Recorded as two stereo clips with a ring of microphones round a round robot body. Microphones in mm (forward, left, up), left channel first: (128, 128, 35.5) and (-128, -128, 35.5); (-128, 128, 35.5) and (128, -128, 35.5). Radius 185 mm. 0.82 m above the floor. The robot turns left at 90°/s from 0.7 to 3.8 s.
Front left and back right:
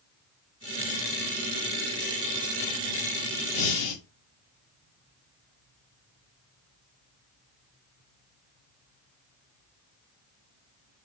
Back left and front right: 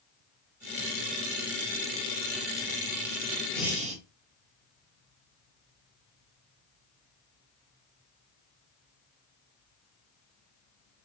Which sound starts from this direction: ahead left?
Breathing, at 3.5 s.